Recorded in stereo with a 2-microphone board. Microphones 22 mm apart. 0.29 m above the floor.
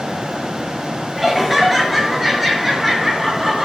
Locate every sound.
1.2 s laughter: 10° right (ahead or behind), 5 m